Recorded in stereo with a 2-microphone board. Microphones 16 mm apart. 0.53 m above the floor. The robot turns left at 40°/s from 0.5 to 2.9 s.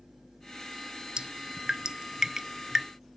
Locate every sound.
1.2 s dripping: 85° right; by 2.9 s 20° right (ahead or behind)